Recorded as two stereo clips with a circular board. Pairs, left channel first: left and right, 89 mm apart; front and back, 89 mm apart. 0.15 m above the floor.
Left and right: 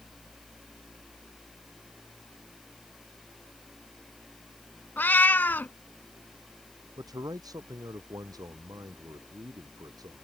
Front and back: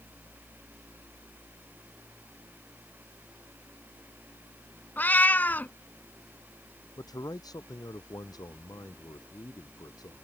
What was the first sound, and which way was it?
A cat meowing, 45° left.